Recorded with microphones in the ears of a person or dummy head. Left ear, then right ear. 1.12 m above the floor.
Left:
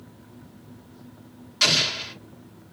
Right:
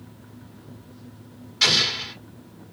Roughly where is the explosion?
Left.